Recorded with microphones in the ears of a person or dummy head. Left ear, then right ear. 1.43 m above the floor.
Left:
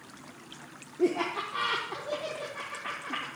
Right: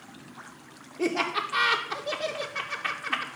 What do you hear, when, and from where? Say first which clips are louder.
1.0 s laughter: right 1 dB; 60° right (ahead or behind), 0.5 m